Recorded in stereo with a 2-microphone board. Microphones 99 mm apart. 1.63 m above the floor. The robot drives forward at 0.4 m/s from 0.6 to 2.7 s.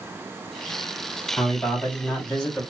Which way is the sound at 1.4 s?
15° left (ahead or behind).